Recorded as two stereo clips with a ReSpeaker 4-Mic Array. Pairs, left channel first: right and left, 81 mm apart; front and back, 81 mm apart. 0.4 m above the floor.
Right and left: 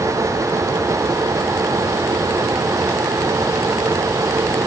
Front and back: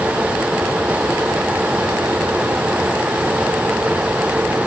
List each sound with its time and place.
Only background noise.